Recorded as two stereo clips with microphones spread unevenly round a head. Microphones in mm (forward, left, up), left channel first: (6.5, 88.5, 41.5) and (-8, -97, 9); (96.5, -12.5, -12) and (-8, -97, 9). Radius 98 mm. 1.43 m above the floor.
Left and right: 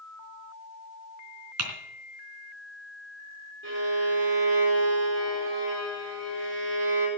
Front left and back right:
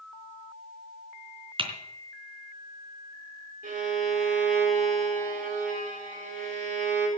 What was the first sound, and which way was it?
Typing on a keyboard, 95° right.